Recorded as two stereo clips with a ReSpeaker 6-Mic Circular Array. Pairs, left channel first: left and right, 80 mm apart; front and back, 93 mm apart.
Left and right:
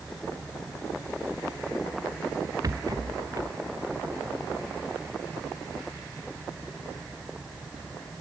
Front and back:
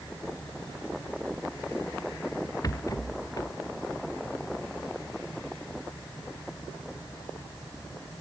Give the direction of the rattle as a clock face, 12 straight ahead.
2 o'clock.